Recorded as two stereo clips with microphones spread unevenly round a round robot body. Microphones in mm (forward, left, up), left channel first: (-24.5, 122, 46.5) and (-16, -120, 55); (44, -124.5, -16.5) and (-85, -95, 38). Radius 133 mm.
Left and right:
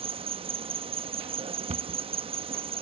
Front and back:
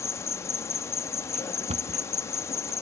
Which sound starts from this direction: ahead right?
An insect, at 0.0 s.